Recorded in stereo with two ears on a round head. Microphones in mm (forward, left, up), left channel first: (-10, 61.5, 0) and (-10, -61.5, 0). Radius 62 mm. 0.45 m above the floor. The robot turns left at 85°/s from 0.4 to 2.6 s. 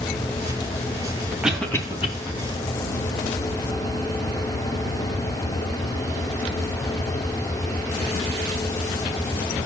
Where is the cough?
10° right (ahead or behind), 2.5 m; by 2.1 s 45° left (ahead or behind), 2.5 m.